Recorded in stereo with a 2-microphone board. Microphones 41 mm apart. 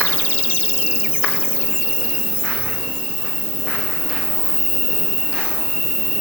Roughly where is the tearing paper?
I don't hear tearing paper.